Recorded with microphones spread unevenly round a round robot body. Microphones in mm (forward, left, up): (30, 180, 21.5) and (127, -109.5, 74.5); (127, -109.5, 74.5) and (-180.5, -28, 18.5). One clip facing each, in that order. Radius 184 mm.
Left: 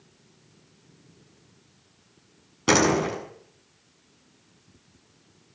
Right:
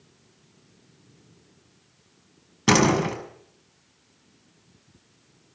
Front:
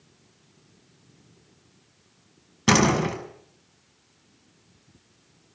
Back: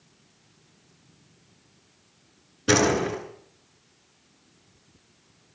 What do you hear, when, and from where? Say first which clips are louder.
2.7 s a door slam: right 1 dB, even; 15° right, 7 m